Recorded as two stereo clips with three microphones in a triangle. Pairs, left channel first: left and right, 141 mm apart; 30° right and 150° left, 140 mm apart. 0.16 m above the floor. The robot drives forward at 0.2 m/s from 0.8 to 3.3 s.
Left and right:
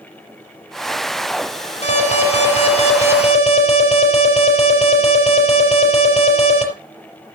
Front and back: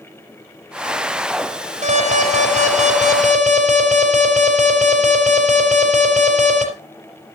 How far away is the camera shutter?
No camera shutter in this recording.